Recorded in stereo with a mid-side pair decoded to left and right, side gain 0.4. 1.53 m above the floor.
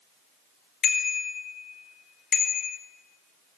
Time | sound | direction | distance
0.8 | a bicycle bell | 65° left | 4.5 m